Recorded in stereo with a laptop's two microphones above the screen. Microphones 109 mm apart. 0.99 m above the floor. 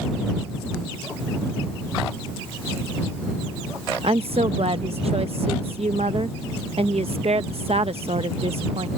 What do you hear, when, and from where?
4.0 s a woman speaking: 65° right (ahead or behind)